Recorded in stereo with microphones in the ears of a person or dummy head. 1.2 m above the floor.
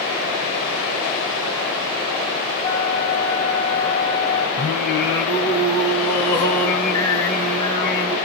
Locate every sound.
2.6 s a flute: 20° left (ahead or behind), 1.3 m
4.6 s singing: 10° left (ahead or behind), 2.5 m